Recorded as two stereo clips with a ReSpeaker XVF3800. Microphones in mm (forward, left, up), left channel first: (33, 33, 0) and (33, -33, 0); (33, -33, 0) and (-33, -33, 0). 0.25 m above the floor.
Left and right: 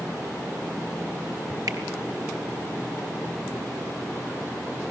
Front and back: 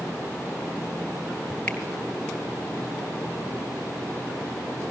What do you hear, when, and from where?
1.7 s a finger snap: 70° right, 3.5 m